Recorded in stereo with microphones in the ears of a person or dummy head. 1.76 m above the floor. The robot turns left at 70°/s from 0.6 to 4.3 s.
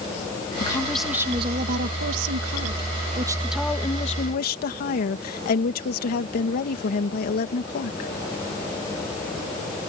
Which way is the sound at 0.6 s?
25° left.